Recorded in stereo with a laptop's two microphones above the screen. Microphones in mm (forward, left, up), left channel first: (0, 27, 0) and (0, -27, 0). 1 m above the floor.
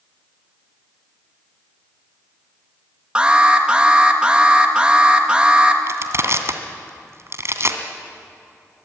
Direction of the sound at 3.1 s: 15° right (ahead or behind).